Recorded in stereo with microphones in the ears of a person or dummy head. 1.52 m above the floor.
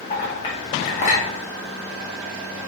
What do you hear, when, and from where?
0.1 s a clink: 30° left (ahead or behind), 1.1 m